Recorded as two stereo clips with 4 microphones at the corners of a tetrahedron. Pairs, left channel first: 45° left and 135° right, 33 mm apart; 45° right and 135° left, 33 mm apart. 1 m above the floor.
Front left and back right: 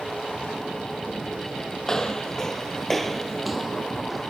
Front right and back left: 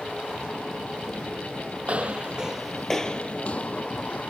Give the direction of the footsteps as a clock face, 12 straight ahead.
8 o'clock.